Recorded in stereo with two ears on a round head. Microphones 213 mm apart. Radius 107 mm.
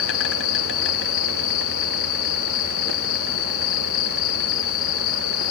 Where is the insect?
60° left (ahead or behind), 1.2 m.